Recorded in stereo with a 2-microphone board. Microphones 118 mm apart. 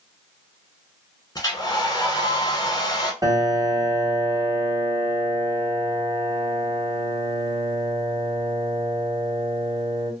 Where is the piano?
30° right (ahead or behind), 1.0 m.